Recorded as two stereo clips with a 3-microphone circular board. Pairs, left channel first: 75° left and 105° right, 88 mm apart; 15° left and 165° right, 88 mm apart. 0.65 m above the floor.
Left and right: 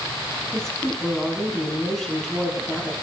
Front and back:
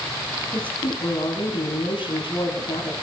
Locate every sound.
0.5 s a woman speaking: 10° right, 5.5 m